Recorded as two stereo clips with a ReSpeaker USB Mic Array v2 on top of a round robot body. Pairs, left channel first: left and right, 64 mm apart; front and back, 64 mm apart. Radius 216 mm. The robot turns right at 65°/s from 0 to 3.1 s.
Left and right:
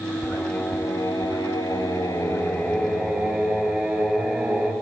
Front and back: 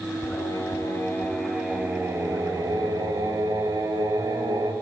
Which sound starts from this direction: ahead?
Singing, at 0.2 s.